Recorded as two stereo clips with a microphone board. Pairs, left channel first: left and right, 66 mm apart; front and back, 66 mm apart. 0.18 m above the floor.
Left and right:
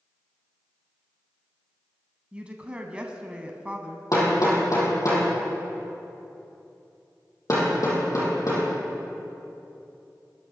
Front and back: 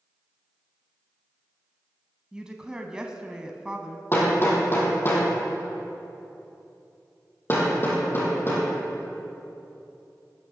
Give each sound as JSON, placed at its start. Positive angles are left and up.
{"t": 2.3, "sound": "a woman speaking", "azimuth_deg": -125, "distance_m": 1.0}
{"t": 4.1, "sound": "hammering", "azimuth_deg": 55, "distance_m": 4.0}